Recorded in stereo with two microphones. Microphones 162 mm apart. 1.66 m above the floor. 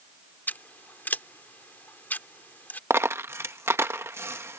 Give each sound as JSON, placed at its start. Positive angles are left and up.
{"t": 0.5, "sound": "scissors", "side_deg": 10}
{"t": 2.9, "sound": "a dropped coin", "side_deg": -15}